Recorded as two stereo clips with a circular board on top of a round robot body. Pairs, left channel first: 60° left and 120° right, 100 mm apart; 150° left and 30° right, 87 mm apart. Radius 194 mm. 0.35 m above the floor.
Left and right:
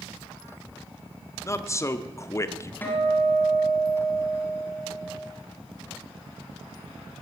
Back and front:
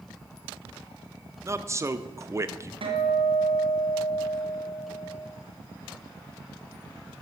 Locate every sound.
1.4 s a man speaking: 10° left, 1.0 m
2.8 s a guitar: 10° right, 2 m